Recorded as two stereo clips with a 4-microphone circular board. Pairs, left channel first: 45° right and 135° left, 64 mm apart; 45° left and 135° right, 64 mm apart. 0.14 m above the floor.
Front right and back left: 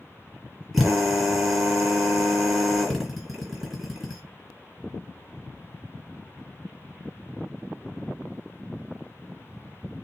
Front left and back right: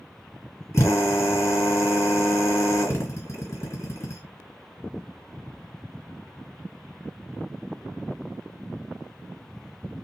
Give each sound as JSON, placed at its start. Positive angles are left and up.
{"t": 0.7, "sound": "a drill", "azimuth_deg": 50, "distance_m": 2.0}